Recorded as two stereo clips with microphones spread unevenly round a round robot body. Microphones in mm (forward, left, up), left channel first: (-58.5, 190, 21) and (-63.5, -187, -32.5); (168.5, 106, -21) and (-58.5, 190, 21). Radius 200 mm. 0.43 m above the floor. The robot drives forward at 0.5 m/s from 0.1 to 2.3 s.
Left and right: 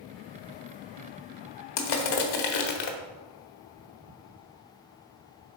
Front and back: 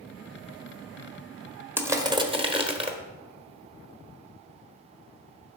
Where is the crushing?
75° left, 1.2 m; by 3.0 s 90° left, 1.2 m.